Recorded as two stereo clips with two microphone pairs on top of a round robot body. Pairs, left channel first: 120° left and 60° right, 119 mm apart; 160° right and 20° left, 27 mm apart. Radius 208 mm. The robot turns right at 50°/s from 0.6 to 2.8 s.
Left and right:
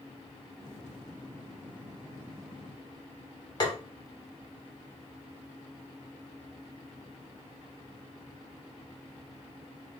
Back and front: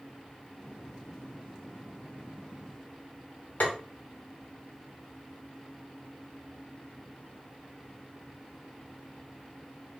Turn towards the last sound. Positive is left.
turn(degrees=170)